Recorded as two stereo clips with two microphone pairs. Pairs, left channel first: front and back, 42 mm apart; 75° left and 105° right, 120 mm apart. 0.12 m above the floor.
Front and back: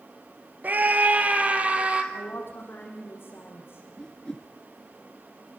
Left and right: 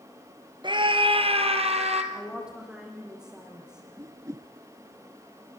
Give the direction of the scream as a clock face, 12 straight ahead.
5 o'clock.